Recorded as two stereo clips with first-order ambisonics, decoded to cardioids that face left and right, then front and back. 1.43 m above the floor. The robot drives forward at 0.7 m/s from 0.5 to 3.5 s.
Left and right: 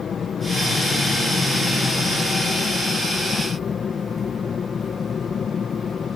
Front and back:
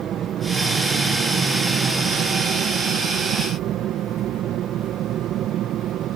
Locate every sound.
0.0 s an aircraft: 145° left; by 6.2 s 150° left